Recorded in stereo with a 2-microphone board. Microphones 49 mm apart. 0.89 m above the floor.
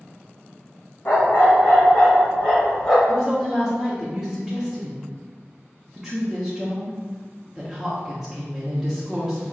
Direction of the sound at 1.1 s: 50° left (ahead or behind).